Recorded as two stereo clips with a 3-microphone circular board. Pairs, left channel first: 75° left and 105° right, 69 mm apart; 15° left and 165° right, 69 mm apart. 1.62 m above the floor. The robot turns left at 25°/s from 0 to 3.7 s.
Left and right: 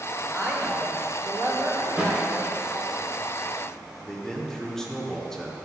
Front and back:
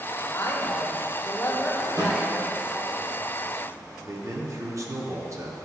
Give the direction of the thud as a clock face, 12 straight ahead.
6 o'clock.